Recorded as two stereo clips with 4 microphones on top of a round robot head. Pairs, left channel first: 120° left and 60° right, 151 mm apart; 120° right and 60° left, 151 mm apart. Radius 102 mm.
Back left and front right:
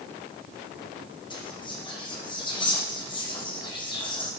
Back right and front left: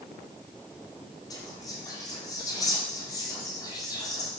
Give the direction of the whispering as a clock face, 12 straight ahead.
6 o'clock.